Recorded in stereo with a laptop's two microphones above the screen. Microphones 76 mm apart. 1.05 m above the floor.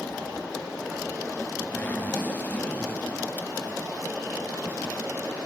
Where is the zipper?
25° left (ahead or behind), 2.5 m.